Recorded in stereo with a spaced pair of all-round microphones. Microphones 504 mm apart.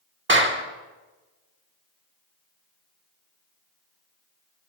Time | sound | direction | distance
0.3 | a clap | 20° right (ahead or behind) | 1.4 m